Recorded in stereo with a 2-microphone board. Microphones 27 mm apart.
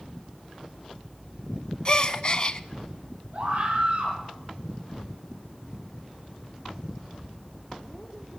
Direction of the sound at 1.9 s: 40° left (ahead or behind).